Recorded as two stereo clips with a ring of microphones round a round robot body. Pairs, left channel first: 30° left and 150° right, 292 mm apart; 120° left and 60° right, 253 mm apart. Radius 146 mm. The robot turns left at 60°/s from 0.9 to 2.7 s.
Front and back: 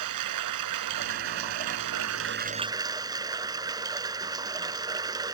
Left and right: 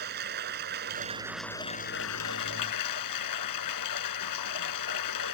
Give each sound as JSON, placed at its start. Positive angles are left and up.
{"t": 0.0, "sound": "running water", "azimuth_deg": -120}